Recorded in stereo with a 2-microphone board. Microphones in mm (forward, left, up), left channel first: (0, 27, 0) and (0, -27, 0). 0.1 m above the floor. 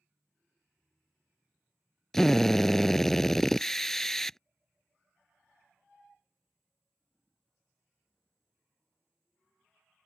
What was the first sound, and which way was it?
A drill, 10° left (ahead or behind).